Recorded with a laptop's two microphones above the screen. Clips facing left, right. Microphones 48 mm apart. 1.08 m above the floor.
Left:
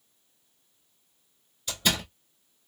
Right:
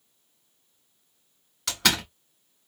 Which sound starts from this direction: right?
A door slam, at 1.7 s.